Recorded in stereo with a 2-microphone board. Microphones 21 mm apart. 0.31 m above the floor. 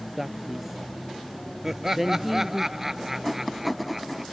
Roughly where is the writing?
Centre.